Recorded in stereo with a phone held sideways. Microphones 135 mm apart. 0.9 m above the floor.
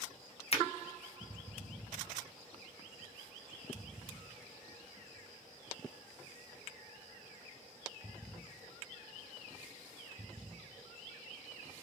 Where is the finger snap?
45° left (ahead or behind), 0.6 m.